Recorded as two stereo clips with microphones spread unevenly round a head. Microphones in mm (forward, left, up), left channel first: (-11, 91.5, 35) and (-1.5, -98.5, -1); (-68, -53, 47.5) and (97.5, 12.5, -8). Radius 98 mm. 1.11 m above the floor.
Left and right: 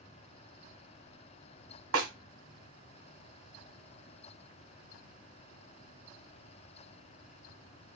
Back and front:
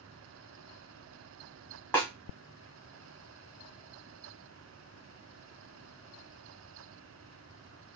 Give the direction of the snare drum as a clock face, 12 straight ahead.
3 o'clock.